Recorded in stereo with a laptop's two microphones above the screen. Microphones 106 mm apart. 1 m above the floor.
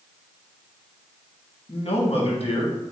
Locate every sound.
1.7 s a man speaking: 65° left (ahead or behind), 1.2 m